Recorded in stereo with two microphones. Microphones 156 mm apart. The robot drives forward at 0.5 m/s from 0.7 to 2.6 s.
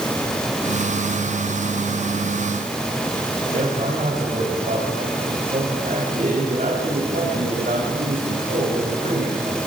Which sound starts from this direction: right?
A man speaking, at 3.5 s.